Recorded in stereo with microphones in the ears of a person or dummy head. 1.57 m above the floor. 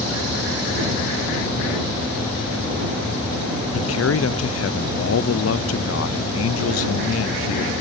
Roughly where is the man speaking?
Left.